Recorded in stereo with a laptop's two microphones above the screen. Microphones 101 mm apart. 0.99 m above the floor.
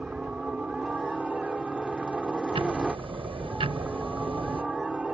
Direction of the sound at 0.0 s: 10° right (ahead or behind).